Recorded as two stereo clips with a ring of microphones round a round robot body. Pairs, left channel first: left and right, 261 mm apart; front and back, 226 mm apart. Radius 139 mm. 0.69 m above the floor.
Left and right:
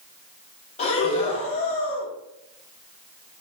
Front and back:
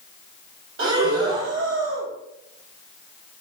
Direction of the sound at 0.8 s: 155° left.